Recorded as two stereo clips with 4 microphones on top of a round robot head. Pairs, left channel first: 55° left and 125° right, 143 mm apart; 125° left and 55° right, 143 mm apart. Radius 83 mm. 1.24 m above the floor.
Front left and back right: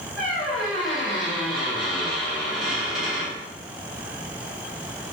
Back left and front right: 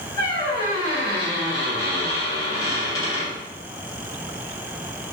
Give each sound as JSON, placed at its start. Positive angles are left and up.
{"t": 0.2, "sound": "a squeak", "azimuth_deg": 155, "distance_m": 0.7}